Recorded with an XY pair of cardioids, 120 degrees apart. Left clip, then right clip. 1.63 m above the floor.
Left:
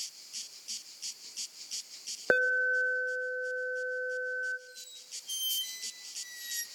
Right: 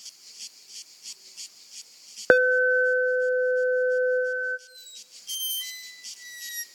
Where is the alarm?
50° right, 0.8 m.